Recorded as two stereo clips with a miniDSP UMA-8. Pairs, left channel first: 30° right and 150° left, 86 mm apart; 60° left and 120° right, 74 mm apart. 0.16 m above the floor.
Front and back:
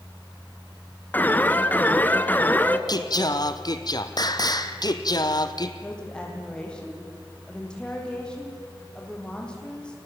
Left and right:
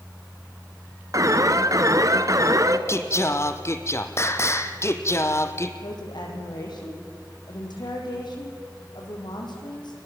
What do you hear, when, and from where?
1.1 s an alarm: 95° right, 1.2 m
2.9 s singing: 10° left, 1.3 m
5.8 s a woman speaking: 50° left, 6.5 m